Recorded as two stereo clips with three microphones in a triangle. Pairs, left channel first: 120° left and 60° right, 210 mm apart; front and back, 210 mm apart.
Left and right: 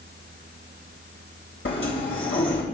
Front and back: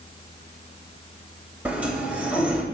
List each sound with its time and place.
1.6 s a sliding door: 95° left, 2.5 m